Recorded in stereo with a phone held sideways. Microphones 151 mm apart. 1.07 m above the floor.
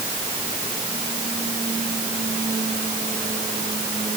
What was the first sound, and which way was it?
Only background noise.